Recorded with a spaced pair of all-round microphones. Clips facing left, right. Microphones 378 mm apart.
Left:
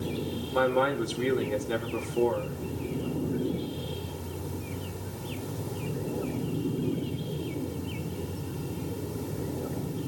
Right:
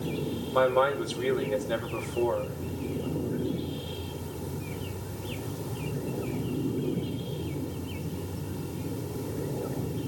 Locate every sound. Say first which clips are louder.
0.5 s a man speaking: right 1 dB; 35° left (ahead or behind), 3.5 m